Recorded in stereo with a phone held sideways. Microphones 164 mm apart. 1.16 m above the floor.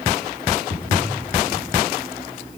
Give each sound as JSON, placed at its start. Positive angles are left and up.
{"t": 0.7, "sound": "footsteps", "side_deg": 80, "distance_m": 10.0}